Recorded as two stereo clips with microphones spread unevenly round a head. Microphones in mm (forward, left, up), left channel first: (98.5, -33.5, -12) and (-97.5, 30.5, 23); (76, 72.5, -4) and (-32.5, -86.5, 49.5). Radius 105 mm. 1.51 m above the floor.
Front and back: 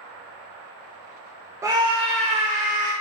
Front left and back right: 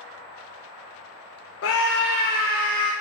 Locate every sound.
1.6 s a scream: 85° left, 0.6 m; by 2.9 s 110° left, 1.3 m